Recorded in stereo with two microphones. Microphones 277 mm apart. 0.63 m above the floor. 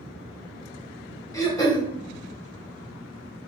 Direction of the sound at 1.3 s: 15° left (ahead or behind).